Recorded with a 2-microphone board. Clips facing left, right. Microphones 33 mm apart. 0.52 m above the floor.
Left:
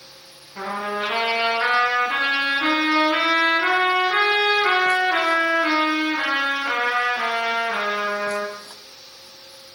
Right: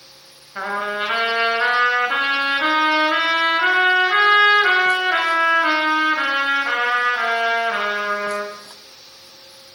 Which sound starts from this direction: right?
A trumpet, at 0.6 s.